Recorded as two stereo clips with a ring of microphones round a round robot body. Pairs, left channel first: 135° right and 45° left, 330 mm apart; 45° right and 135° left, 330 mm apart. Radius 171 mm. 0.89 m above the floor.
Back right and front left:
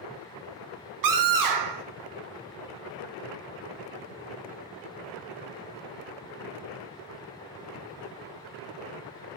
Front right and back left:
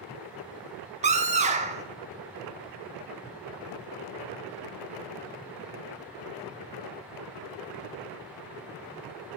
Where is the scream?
65° left, 1.5 m.